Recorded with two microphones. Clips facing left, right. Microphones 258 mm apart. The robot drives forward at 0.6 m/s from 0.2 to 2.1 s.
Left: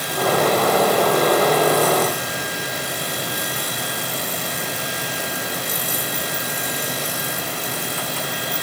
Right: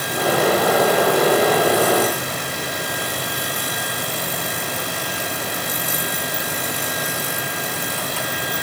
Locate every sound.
Only background noise.